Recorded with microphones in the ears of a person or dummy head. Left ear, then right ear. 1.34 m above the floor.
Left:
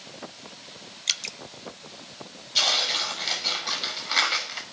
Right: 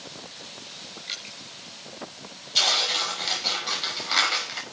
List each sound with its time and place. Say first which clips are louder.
1.1 s dripping: left 8 dB; 70° left (ahead or behind), 1.4 m
2.5 s tearing paper: right 1 dB; centre (ahead or behind), 5.5 m